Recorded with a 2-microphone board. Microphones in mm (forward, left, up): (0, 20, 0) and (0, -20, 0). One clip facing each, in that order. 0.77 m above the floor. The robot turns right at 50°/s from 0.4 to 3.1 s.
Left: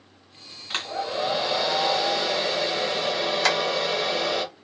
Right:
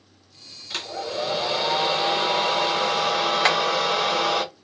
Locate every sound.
0.7 s a hair dryer: 140° left, 1.5 m; by 4.4 s 100° right, 1.5 m
3.4 s tapping: 25° right (ahead or behind), 0.6 m